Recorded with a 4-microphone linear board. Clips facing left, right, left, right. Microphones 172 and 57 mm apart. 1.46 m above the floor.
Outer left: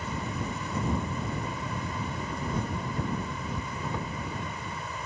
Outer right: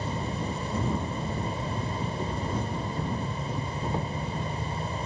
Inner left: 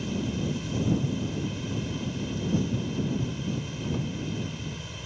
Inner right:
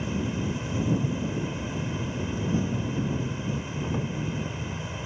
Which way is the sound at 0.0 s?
30° right (ahead or behind).